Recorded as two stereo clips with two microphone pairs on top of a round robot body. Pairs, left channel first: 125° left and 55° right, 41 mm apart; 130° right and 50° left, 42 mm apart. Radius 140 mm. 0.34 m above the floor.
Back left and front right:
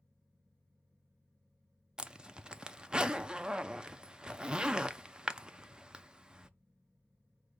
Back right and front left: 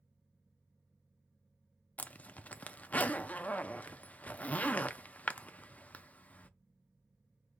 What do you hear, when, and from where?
2.0 s a zipper: 105° right, 0.7 m